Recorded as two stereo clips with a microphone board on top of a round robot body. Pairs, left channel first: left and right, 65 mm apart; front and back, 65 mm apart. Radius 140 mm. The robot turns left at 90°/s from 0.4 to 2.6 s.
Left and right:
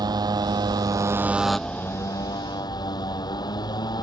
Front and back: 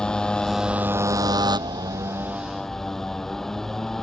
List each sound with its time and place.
0.0 s a motorcycle: 80° right; by 4.0 s 85° left